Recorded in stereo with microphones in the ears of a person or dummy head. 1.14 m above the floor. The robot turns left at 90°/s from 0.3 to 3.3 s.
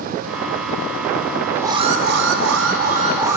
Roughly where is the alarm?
Ahead.